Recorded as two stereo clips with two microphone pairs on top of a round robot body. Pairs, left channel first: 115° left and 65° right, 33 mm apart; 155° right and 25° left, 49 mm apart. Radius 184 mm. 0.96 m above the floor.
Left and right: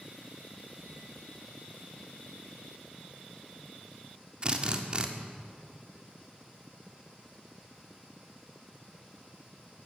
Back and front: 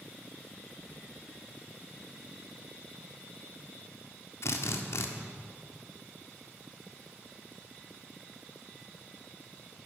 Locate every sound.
4.4 s a drill: 130° right, 1.7 m